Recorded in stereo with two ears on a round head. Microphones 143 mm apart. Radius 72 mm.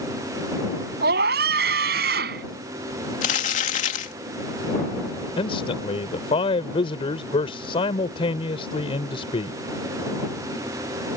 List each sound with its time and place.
1.0 s a scream: 70° right (ahead or behind)
3.2 s crumpling: 45° left (ahead or behind)
5.4 s a man speaking: 35° left (ahead or behind)